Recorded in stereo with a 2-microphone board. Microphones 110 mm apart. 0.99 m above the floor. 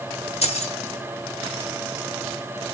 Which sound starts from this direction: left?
Keys jangling, at 0.4 s.